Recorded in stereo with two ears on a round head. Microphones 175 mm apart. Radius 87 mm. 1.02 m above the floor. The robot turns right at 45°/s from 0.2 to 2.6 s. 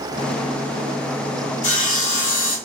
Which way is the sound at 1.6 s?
40° left.